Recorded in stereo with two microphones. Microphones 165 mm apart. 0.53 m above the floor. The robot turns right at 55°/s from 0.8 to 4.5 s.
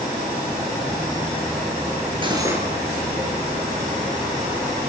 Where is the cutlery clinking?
30° right (ahead or behind), 5 m; by 2.6 s 10° right (ahead or behind), 5 m.